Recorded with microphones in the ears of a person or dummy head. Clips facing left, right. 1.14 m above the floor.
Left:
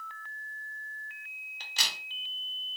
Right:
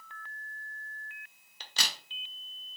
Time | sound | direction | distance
1.6 | a crack | 70° right (ahead or behind) | 0.6 m